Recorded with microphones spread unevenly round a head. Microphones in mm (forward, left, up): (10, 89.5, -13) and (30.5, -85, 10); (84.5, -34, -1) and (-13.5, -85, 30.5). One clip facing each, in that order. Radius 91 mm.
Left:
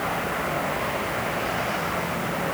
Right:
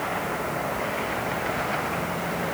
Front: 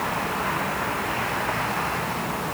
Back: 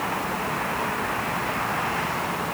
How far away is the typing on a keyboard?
No typing on a keyboard in this recording.